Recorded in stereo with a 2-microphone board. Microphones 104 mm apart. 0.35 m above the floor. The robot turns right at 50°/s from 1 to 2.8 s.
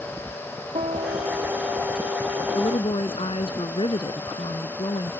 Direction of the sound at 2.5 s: 55° left (ahead or behind).